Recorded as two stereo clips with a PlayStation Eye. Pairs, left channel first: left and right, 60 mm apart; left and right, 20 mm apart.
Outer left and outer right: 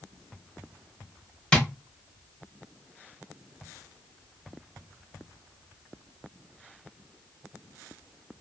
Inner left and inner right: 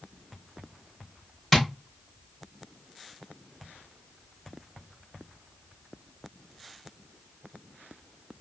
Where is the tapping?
15° left (ahead or behind), 1.0 m.